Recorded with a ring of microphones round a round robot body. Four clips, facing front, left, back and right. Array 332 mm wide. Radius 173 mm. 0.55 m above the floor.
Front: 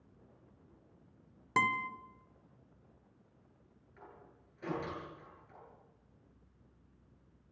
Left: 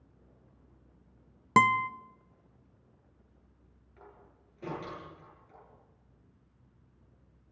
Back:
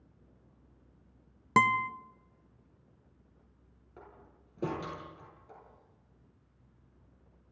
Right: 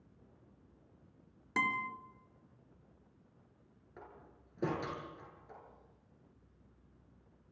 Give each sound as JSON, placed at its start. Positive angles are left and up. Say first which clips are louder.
{"t": 1.6, "sound": "a guitar", "louder": "left 12 dB, back 7 dB", "azimuth_deg": 120, "distance_m": 0.9}
{"t": 4.0, "sound": "a door slam", "louder": "right 1 dB, back 2 dB", "azimuth_deg": -140, "distance_m": 9.5}